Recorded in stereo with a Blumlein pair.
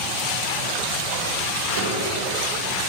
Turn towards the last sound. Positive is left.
turn(degrees=-60)